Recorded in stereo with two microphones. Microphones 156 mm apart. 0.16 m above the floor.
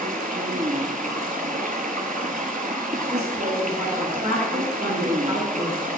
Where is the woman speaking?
55° right (ahead or behind), 3.5 m.